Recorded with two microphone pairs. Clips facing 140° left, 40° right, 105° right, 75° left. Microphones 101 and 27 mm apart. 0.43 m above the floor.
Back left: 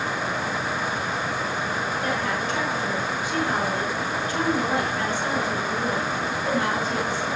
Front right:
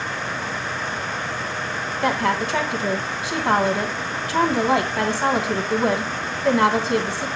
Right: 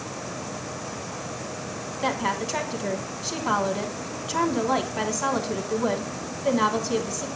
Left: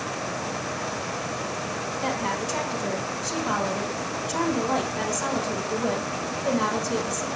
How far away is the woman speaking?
About 3 m.